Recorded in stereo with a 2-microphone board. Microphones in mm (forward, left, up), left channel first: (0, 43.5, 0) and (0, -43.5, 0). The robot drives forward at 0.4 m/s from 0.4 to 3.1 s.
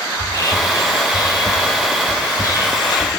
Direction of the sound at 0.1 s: 45° left (ahead or behind).